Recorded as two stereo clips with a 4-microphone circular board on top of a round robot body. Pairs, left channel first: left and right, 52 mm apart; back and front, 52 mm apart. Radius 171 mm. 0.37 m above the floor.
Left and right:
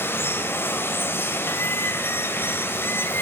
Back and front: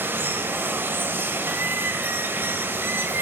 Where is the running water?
45° left, 1.8 m.